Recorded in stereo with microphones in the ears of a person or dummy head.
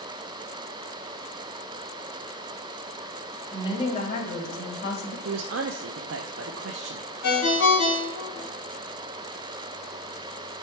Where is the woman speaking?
20° left (ahead or behind), 2.5 m; by 5.2 s 70° left (ahead or behind), 3 m.